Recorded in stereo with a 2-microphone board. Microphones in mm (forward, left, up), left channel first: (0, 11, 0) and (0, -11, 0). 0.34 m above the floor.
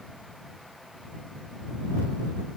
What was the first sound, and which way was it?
Only background noise.